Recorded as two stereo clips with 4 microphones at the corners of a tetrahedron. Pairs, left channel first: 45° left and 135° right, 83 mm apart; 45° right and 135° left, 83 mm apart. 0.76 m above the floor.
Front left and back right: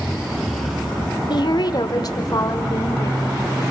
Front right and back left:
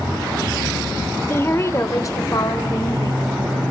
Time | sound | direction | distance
1.3 | a woman speaking | 15° left | 1.8 m